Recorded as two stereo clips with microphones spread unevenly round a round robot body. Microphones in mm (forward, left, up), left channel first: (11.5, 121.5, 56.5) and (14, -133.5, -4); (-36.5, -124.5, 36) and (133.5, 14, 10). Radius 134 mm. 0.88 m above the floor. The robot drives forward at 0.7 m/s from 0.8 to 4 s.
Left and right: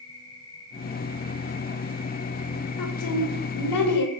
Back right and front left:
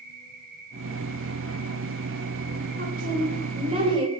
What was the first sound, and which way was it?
An insect, 10° left.